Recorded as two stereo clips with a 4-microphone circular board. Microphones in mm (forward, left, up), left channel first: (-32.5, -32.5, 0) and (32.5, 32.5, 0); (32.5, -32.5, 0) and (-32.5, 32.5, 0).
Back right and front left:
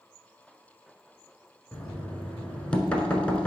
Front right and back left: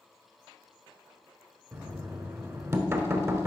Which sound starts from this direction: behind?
Knocking, at 1.7 s.